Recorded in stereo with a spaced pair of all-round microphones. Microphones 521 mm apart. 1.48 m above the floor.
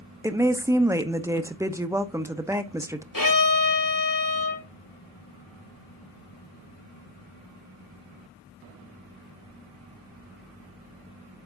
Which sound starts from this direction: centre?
A woman speaking, at 0.2 s.